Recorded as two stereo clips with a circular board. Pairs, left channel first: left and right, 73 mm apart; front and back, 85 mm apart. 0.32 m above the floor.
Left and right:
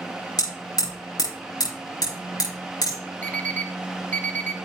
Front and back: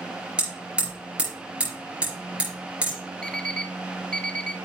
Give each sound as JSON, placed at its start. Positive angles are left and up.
{"t": 0.4, "sound": "hammering", "azimuth_deg": 105, "distance_m": 5.0}
{"t": 3.2, "sound": "an alarm clock", "azimuth_deg": 65, "distance_m": 0.7}